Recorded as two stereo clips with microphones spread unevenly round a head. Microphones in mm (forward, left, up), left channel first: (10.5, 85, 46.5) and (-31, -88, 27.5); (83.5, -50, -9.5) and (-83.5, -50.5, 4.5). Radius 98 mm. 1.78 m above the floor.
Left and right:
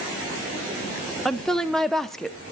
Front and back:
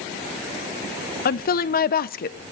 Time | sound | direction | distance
1.2 | a woman speaking | 5° right | 0.8 m